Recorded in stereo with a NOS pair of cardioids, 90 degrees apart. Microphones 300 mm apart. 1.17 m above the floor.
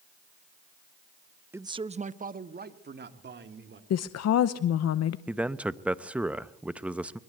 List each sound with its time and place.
1.5 s a man speaking: 5° right, 0.8 m; by 3.8 s 40° right, 3 m
3.9 s a woman speaking: 60° left, 0.9 m
5.3 s a man speaking: 5° right, 1.0 m